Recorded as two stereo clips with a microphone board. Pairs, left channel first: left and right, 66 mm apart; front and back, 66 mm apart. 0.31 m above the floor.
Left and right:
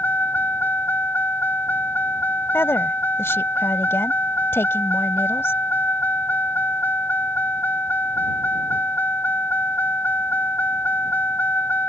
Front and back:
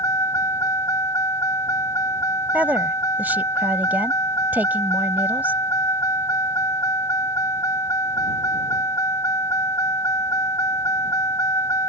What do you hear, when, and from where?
0.0 s a vehicle: 30° left
2.5 s a woman speaking: 125° left